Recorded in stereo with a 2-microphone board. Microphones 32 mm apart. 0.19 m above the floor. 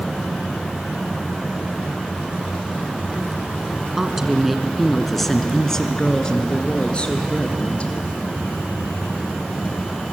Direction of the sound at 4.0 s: 15° right (ahead or behind).